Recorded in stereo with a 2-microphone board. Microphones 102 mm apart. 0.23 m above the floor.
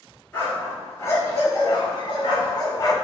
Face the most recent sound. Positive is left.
turn(degrees=40)  # may be behind; listen again after turning